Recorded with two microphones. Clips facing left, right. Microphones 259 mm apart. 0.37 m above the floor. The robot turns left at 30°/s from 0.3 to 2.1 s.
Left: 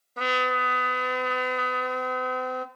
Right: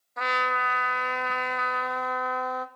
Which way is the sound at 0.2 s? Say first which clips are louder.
Left 4 dB; 110° left.